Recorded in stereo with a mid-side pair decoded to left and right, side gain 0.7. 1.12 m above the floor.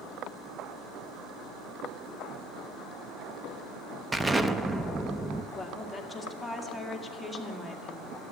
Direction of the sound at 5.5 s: 5° left.